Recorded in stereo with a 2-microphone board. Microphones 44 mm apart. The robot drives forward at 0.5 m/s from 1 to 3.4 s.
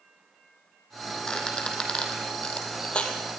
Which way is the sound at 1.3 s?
20° left (ahead or behind).